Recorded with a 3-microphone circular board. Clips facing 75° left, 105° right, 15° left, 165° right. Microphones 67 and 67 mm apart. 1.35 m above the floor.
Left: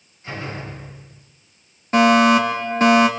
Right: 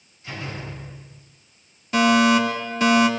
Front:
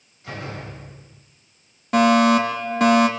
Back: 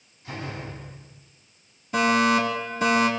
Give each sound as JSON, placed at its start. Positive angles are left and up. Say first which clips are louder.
{"t": 0.2, "sound": "a door slam", "louder": "left 3 dB, front 2 dB", "azimuth_deg": 20, "distance_m": 5.5}
{"t": 1.9, "sound": "a fire alarm", "louder": "left 3 dB, front 5 dB", "azimuth_deg": 25, "distance_m": 4.5}